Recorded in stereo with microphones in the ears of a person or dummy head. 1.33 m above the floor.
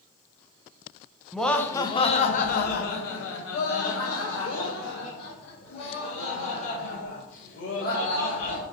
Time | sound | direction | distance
1.3 | laughter | centre (ahead or behind) | 0.7 m